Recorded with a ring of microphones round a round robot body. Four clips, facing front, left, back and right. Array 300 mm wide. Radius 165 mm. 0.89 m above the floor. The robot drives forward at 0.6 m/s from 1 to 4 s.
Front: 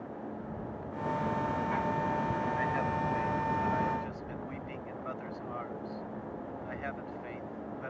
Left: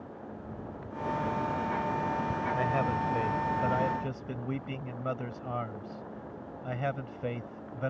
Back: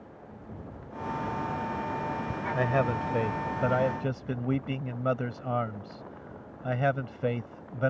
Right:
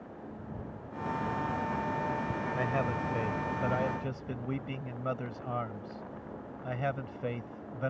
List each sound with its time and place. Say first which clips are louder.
2.5 s a man speaking: left 2 dB, back 4 dB; straight behind